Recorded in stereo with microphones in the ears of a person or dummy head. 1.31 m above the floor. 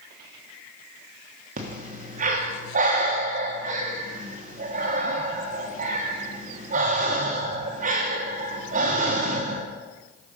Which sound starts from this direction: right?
Breathing, at 1.6 s.